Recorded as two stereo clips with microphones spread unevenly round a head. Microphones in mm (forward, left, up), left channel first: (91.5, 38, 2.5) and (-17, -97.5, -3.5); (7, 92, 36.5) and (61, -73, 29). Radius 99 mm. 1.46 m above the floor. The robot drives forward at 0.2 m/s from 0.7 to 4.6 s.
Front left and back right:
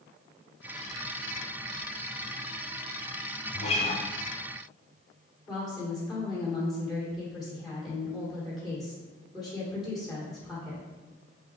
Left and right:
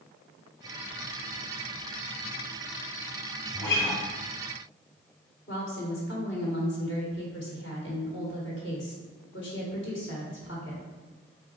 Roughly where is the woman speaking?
Behind left.